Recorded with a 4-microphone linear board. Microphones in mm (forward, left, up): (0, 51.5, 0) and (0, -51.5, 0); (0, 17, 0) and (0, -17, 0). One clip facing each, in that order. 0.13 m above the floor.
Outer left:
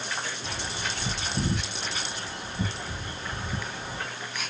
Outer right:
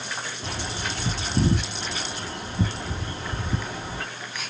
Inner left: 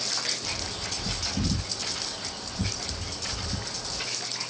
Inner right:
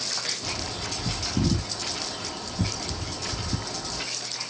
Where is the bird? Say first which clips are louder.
Outer right 2 dB, inner right 1 dB; 60° right (ahead or behind), 2.5 m.